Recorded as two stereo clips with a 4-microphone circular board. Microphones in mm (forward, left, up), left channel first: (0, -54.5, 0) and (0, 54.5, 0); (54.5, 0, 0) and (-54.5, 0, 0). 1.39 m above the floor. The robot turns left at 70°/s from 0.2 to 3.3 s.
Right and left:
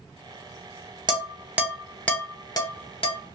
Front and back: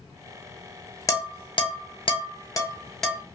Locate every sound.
1.1 s dishes clattering: 55° left, 0.7 m; by 3.2 s 95° right, 0.7 m